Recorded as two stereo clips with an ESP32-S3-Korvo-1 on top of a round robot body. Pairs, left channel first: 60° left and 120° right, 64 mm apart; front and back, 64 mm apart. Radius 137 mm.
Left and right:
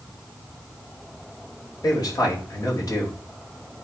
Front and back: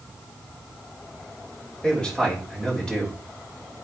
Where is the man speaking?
80° left, 3.5 m.